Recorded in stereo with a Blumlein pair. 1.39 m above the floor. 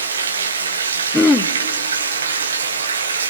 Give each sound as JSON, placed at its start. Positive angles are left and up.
{"t": 0.0, "sound": "running water", "azimuth_deg": -70, "distance_m": 1.5}
{"t": 1.1, "sound": "throat clearing", "azimuth_deg": 10, "distance_m": 0.9}